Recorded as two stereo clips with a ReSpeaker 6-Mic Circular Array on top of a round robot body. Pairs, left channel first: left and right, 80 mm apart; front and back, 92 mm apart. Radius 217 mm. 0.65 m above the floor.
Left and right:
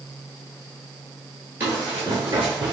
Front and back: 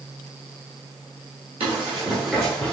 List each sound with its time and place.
1.6 s running footsteps: 155° right, 0.9 m; by 2.7 s 40° right, 0.7 m